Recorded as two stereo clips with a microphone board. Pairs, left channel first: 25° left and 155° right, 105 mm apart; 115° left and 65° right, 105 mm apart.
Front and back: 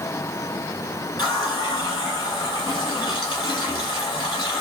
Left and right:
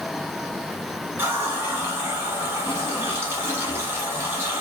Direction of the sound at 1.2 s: 5° right.